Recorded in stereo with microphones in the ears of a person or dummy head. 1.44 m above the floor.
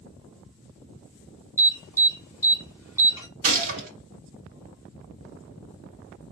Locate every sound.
1.6 s an alarm: 15° right (ahead or behind), 1.2 m
3.4 s a gunshot: 50° right (ahead or behind), 1.2 m